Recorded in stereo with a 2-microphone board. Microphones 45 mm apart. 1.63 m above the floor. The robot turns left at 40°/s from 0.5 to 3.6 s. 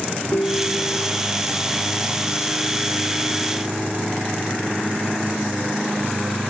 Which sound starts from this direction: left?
A ringtone, at 0.3 s.